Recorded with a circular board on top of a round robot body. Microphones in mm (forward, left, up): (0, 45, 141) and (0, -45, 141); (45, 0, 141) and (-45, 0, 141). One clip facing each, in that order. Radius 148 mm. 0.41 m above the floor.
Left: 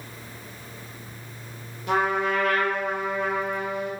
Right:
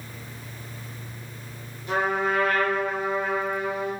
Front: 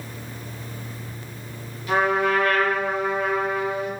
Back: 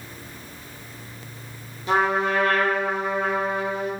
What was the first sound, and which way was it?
A trumpet, 115° left.